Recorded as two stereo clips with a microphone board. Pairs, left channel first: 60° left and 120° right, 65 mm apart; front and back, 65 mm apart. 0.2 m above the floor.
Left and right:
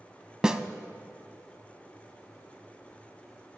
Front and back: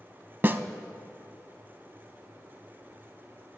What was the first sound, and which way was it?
A snare drum, 170° left.